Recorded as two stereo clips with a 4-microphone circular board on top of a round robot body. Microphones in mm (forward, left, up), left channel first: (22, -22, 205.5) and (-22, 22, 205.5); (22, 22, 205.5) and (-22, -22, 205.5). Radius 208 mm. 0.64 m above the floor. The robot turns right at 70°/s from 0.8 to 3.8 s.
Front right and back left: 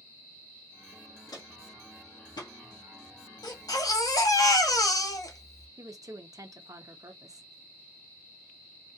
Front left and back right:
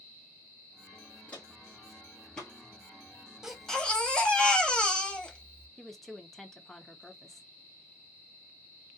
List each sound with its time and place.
1.3 s footsteps: 25° right, 0.8 m; by 2.5 s 30° right, 1.1 m
3.4 s a baby crying: 55° right, 1.4 m; by 5.7 s 30° right, 1.4 m
5.8 s a woman speaking: 130° left, 1.1 m